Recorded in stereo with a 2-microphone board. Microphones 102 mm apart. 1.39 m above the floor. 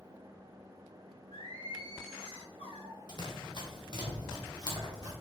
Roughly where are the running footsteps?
Left.